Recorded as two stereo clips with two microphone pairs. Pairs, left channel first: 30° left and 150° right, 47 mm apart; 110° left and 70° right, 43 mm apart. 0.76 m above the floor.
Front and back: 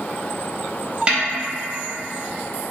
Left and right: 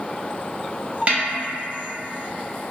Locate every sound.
1.1 s a snare drum: 90° right, 0.7 m